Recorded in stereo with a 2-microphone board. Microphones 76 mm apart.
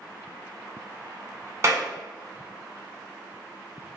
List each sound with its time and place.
1.6 s a clap: 40° right (ahead or behind), 1.0 m